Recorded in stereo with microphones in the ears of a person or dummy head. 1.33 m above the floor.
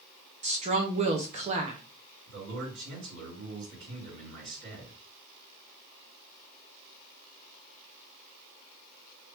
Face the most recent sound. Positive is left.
turn(degrees=-70)  # may be behind; listen again after turning